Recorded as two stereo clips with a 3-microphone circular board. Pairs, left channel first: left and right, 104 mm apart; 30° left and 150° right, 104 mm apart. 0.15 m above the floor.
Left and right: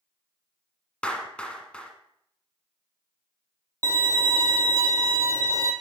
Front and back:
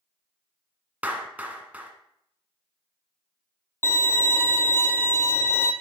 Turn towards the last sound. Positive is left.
turn(degrees=-40)